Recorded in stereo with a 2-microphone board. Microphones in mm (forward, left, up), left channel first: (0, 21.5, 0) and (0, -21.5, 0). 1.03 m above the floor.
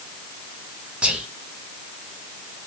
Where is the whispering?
25° right (ahead or behind), 0.5 m.